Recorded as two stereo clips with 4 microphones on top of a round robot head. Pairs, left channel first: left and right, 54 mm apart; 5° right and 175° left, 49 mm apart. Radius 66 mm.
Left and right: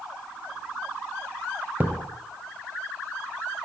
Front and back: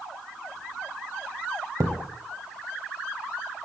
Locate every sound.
1.8 s a thud: 155° right, 1.2 m